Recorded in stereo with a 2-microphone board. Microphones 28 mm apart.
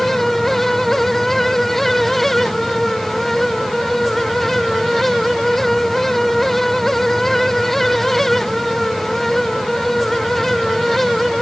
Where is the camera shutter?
I don't hear a camera shutter.